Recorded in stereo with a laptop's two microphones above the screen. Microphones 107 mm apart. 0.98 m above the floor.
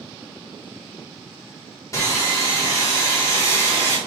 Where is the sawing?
30° left (ahead or behind), 2.5 m.